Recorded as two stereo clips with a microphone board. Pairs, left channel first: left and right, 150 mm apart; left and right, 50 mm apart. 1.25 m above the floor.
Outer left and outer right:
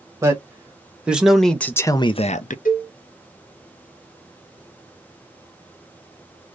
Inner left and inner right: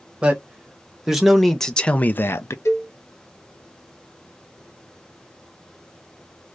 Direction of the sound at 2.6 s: 75° left (ahead or behind).